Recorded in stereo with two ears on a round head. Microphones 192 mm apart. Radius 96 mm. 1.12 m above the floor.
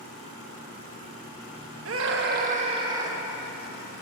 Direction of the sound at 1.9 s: 70° right (ahead or behind).